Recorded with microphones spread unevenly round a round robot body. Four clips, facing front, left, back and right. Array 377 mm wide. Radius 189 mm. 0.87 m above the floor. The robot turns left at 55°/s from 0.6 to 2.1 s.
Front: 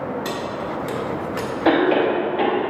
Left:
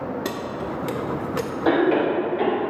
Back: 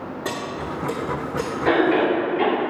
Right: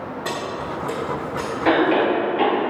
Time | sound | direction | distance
0.2 | keys jangling | 90° left | 0.5 m
1.6 | a cough | straight ahead | 1.9 m